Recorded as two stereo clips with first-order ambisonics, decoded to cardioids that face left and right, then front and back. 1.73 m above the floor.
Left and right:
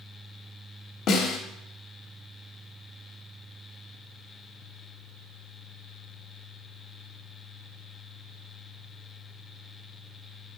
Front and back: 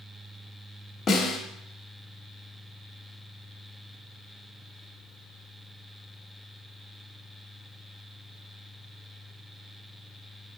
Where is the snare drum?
70° left, 1.3 m.